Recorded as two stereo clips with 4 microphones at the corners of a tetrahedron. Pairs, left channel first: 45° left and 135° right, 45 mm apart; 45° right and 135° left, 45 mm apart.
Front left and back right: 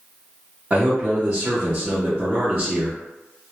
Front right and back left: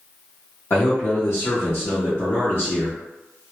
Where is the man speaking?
70° right, 0.8 m.